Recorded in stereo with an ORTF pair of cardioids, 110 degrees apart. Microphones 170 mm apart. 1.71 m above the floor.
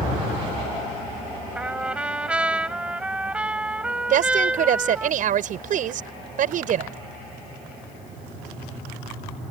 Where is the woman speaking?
55° right.